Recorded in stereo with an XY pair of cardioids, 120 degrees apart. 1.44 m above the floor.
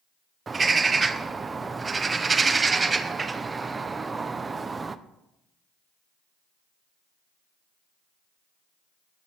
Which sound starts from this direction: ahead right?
A bird, at 0.5 s.